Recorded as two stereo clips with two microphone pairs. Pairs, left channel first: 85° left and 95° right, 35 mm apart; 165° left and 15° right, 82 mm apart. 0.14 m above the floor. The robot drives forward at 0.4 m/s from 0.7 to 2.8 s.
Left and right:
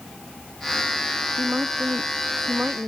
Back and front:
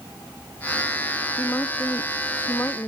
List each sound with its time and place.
1.4 s a woman speaking: 130° right